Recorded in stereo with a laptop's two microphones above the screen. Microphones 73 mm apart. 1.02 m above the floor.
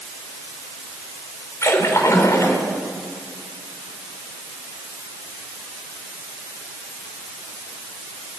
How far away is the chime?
I don't hear a chime.